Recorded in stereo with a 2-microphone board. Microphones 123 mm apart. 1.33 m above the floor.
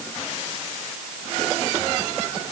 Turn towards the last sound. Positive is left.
No sound to turn to.